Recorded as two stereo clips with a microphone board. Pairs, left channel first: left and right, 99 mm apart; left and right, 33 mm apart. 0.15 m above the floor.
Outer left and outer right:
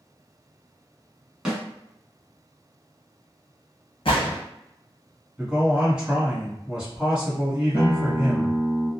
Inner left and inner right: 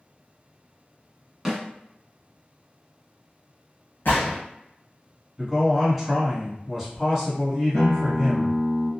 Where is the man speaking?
10° right (ahead or behind), 1.1 m.